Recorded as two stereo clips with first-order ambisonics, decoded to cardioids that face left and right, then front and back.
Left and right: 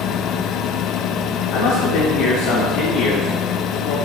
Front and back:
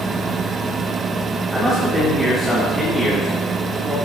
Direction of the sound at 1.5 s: 95° left.